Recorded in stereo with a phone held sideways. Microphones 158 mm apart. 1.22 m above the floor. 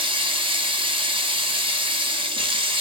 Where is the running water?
35° right (ahead or behind), 0.8 m.